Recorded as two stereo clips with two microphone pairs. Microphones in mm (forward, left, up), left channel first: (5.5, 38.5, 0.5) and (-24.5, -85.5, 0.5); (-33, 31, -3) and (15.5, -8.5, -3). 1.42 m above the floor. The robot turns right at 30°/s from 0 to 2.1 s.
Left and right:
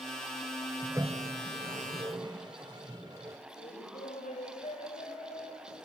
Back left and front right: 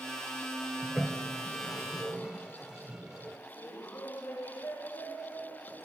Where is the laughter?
110° left, 8 m.